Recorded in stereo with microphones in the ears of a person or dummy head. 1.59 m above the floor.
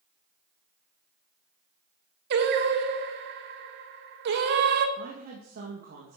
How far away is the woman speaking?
About 2.5 m.